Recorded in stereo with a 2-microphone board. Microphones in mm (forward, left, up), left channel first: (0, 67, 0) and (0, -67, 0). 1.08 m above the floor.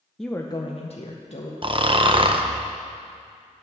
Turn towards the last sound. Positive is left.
turn(degrees=-45)  # may be behind; listen again after turning